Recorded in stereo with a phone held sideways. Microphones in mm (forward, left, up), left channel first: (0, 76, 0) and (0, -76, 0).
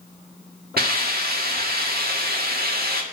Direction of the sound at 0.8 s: 90° right.